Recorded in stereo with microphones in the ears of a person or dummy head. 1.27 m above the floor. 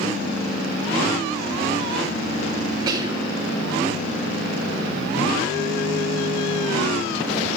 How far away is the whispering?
About 0.7 m.